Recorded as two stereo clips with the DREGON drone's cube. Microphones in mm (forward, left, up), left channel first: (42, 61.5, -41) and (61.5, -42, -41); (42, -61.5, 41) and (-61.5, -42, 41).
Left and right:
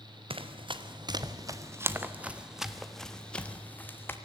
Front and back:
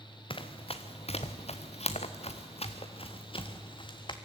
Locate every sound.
0.3 s running footsteps: 50° right, 1.4 m; by 4.2 s 30° left, 1.9 m